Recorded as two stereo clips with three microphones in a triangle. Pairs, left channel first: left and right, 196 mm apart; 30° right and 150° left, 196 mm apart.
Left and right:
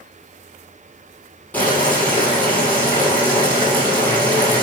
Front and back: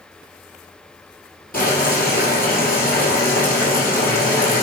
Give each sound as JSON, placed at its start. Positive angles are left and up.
{"t": 1.5, "sound": "boiling", "azimuth_deg": 10, "distance_m": 3.5}